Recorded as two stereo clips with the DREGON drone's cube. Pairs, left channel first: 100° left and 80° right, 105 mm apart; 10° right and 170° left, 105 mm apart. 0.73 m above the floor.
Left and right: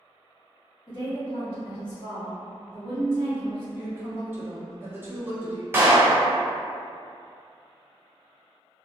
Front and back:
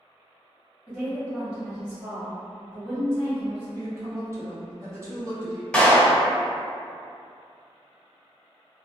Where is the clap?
75° right, 0.5 m.